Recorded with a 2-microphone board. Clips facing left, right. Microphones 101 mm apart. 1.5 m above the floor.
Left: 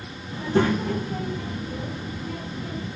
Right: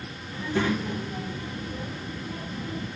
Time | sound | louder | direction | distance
0.3 | a child speaking | left 5 dB | 30° left (ahead or behind) | 0.6 m